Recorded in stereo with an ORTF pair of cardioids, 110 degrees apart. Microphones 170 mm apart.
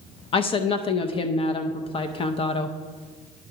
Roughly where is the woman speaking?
Ahead left.